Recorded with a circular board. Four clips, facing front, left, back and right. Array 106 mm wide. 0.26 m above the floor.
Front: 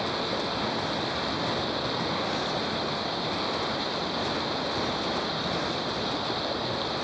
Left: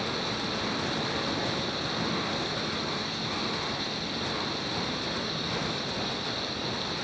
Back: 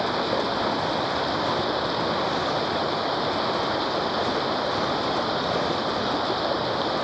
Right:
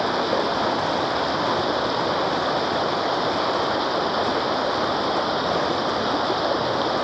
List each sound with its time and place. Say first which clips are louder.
0.0 s running water: right 11 dB, back 5 dB; 115° right